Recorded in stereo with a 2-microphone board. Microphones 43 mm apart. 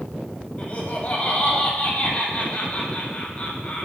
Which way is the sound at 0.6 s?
35° left (ahead or behind).